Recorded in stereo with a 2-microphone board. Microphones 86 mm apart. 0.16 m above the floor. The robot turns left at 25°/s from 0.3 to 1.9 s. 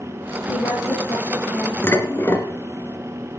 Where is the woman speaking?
60° left, 8 m; by 1.7 s 30° left, 8 m.